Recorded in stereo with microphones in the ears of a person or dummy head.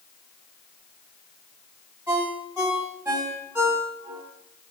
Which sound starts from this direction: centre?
A ringtone, at 2.1 s.